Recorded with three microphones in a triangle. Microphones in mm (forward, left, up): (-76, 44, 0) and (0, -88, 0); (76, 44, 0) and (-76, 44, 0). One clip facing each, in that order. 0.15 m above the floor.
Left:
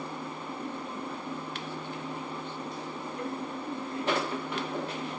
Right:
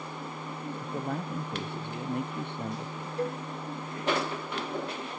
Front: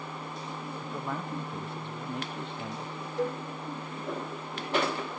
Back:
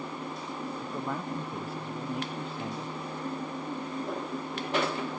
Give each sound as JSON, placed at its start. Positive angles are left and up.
{"t": 0.8, "sound": "a man speaking", "azimuth_deg": -95}
{"t": 3.2, "sound": "a cowbell", "azimuth_deg": 0}